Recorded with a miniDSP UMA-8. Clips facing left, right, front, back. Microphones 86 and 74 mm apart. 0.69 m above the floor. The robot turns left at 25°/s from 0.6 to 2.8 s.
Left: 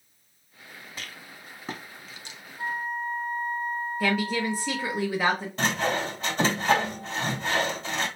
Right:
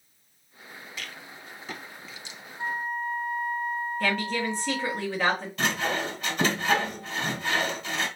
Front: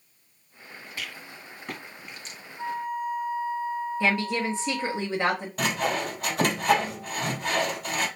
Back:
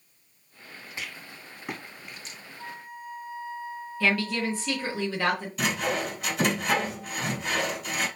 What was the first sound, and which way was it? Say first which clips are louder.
A rattle: right 1 dB, even; 125° left.